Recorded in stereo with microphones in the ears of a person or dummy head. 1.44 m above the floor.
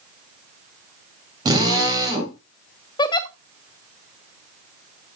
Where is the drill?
25° right (ahead or behind), 4 m.